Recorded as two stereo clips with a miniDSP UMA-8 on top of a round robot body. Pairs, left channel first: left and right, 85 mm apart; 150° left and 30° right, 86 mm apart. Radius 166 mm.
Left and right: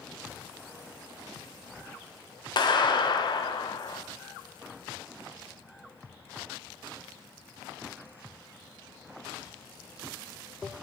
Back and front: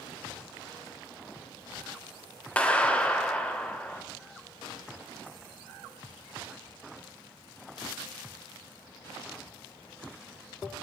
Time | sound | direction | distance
2.6 | a clap | 75° left | 2 m